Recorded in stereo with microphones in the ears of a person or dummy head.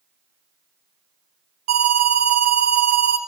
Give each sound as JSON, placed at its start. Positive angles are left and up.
{"t": 1.7, "sound": "an alarm", "side_deg": -30, "distance_m": 1.2}